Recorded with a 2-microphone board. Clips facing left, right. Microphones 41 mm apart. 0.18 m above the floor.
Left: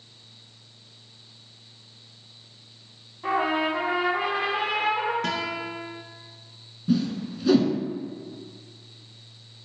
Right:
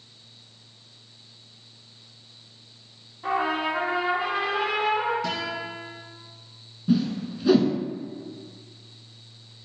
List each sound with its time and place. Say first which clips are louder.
3.2 s a trumpet: left 1 dB; 5° left (ahead or behind), 1.3 m
5.2 s a guitar: left 1 dB; 55° left (ahead or behind), 0.9 m
6.9 s a whoosh: right 1 dB; 10° right (ahead or behind), 0.6 m